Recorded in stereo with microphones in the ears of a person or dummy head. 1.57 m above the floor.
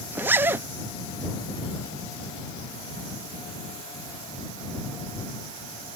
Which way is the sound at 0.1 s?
15° right (ahead or behind).